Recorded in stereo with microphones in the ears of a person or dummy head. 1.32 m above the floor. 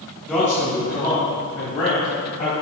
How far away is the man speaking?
About 1.9 m.